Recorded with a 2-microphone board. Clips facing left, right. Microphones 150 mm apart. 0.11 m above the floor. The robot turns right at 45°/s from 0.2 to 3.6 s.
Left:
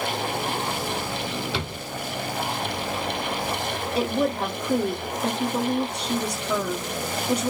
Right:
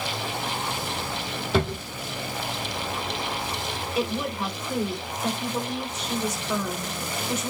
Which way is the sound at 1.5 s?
45° right (ahead or behind).